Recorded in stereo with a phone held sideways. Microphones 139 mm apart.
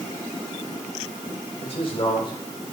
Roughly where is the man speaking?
Left.